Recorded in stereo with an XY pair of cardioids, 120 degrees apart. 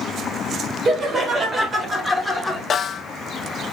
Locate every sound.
0.8 s laughter: 40° right, 1.9 m; by 2.6 s 10° left, 1.2 m
2.7 s a snare drum: 45° left, 0.6 m